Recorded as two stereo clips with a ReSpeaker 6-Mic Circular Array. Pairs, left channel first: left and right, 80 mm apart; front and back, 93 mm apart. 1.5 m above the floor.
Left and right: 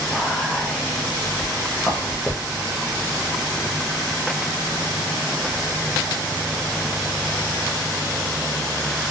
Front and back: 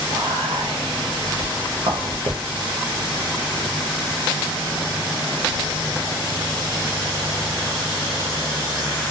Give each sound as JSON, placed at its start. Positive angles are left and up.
{"t": 0.1, "sound": "whispering", "azimuth_deg": 180, "distance_m": 0.6}